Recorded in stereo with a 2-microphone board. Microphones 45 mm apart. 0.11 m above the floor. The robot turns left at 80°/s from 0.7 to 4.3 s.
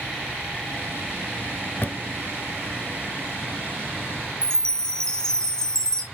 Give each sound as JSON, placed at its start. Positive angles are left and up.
{"t": 1.8, "sound": "a drawer", "side_deg": 40, "distance_m": 0.7}
{"t": 4.4, "sound": "a chime", "side_deg": 15, "distance_m": 0.5}